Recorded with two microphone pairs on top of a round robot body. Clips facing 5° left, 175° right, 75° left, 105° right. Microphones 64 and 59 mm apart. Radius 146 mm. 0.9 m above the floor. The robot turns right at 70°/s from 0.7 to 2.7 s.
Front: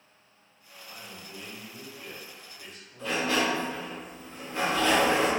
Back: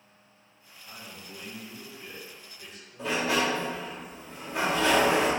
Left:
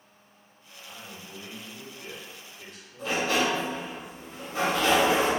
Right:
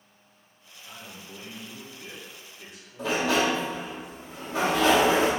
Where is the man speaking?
160° right, 1.7 m; by 4.0 s 30° right, 1.7 m.